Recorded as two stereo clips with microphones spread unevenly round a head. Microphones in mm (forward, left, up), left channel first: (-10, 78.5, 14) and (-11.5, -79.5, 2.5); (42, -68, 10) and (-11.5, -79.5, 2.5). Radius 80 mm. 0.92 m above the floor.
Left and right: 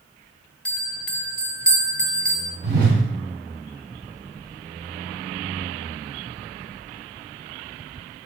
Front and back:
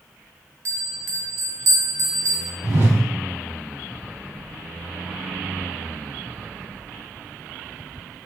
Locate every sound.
0.7 s a bell: 170° left, 0.6 m
2.6 s a whoosh: 120° right, 2 m